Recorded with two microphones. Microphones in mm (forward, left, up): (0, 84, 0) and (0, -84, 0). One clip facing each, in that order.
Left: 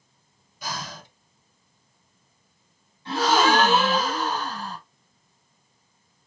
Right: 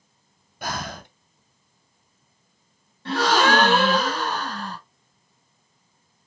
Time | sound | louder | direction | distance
0.6 | breathing | right 4 dB | 60° right (ahead or behind) | 0.6 m
3.0 | a gasp | right 1 dB | 75° right (ahead or behind) | 3 m